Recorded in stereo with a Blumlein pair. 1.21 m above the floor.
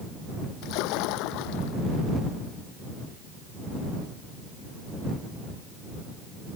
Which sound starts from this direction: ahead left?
A splash, at 0.6 s.